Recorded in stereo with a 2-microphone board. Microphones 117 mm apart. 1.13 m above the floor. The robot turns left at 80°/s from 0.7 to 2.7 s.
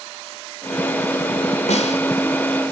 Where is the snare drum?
70° left (ahead or behind), 2 m; by 2.0 s 65° left (ahead or behind), 2 m.